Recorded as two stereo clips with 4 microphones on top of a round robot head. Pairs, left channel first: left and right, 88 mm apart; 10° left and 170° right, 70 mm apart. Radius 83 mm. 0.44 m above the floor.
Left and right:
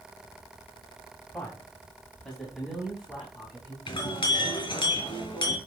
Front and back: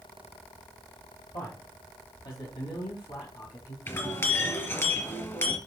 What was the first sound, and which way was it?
A man speaking, 15° left.